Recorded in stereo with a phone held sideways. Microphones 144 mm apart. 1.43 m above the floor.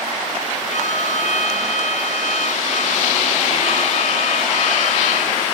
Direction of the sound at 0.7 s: 55° left (ahead or behind).